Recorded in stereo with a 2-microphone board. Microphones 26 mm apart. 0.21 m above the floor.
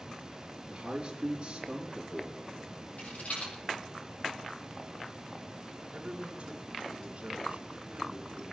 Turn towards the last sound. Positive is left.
turn(degrees=-50)  # may be behind; listen again after turning